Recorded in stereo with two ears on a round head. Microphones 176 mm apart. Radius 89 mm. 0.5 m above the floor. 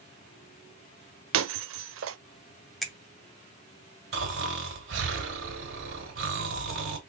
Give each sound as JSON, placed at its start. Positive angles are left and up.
{"t": 1.3, "sound": "breaking glass", "side_deg": -65, "distance_m": 0.5}
{"t": 2.8, "sound": "a finger snap", "side_deg": 0, "distance_m": 0.8}
{"t": 4.1, "sound": "snoring", "side_deg": -70, "distance_m": 2.0}